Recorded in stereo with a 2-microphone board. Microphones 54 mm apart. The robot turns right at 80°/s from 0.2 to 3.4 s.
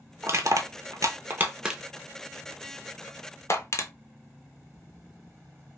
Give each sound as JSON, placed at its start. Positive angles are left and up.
{"t": 0.2, "sound": "crushing", "side_deg": -45, "distance_m": 0.6}